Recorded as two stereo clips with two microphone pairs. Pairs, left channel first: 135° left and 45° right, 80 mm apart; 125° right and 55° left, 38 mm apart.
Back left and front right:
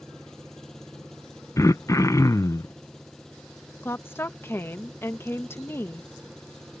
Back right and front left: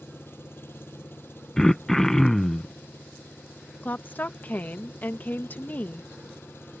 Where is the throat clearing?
160° left.